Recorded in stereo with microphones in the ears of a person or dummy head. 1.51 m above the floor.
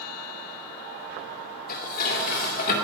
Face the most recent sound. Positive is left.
turn(degrees=45)  # may be behind; listen again after turning